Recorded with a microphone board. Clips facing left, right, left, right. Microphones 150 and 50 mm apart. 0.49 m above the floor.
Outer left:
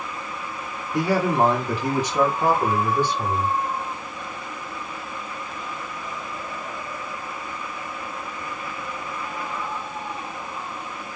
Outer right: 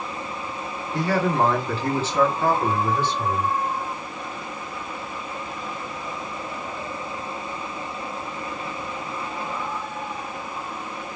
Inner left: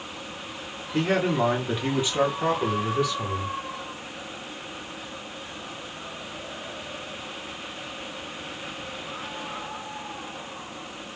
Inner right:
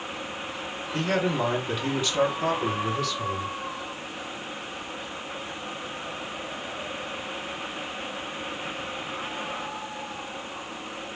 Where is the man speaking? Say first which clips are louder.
Outer left 1 dB, inner left 2 dB; 15° left (ahead or behind), 1.3 m; by 3.6 s 10° left (ahead or behind), 1.9 m.